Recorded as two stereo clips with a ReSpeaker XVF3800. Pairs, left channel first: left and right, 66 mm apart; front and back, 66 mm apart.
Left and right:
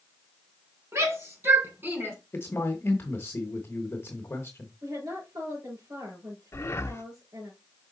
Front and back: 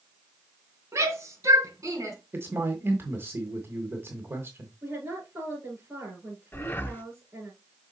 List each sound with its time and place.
0.9 s a shout: 135° right, 3 m; by 2.2 s 145° right, 3 m
2.3 s a man speaking: 140° left, 1.4 m
4.8 s a woman speaking: 115° right, 5.5 m
6.5 s breathing: 50° left, 0.7 m